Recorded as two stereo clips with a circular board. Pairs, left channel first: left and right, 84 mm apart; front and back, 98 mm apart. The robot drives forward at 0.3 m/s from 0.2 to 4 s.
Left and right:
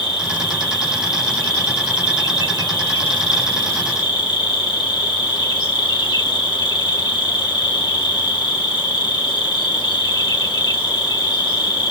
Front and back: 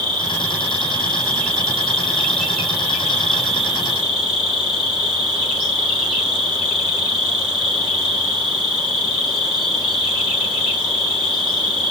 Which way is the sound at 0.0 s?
75° left.